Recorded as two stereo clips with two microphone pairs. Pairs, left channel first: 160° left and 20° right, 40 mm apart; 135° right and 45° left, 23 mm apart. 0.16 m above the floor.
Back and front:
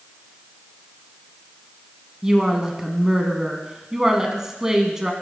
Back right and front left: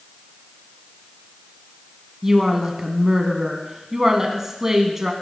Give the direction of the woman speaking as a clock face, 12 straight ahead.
11 o'clock.